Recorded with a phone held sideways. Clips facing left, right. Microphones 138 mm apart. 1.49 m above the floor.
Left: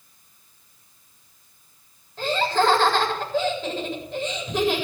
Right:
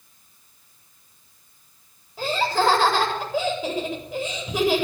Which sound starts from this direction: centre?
Laughter, at 2.2 s.